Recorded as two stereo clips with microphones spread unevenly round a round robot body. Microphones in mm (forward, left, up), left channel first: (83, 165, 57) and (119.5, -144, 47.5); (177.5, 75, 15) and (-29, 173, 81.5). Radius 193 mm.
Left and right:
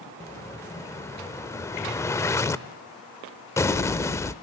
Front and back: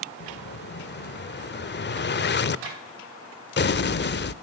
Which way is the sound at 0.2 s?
20° left.